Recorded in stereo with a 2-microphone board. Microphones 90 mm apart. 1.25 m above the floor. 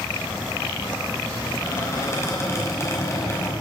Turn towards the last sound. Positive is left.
turn(degrees=30)  # may be behind; listen again after turning